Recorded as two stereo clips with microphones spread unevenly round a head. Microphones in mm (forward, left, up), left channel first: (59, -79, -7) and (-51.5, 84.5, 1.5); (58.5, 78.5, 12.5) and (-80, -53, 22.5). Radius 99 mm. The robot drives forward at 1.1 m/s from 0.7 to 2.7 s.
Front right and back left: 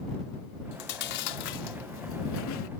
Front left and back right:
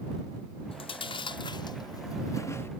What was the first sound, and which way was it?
Chewing, 20° right.